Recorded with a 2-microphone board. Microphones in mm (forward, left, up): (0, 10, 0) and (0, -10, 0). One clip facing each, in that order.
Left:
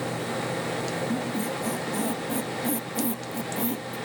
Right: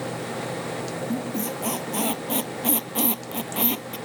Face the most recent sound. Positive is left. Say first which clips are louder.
# even
turn(degrees=-80)